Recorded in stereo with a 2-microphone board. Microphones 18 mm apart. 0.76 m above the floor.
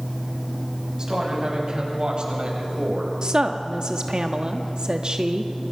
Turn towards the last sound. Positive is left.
turn(degrees=-45)  # may be behind; listen again after turning